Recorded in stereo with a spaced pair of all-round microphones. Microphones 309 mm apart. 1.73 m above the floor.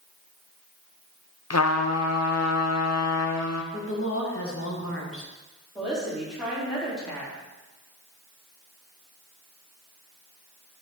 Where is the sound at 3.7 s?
45° left (ahead or behind), 1.8 m.